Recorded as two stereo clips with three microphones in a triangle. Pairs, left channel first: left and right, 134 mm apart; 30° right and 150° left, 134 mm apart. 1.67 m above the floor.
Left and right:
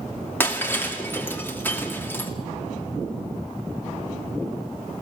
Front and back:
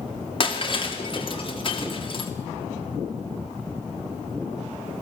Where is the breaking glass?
15° left, 2.5 m.